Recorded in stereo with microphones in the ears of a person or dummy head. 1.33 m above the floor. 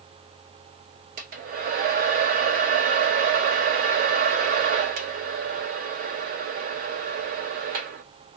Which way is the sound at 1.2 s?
45° right (ahead or behind).